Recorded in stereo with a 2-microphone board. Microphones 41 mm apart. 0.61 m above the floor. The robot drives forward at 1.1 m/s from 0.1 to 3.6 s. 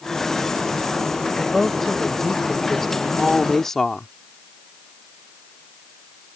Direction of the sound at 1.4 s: 5° left (ahead or behind).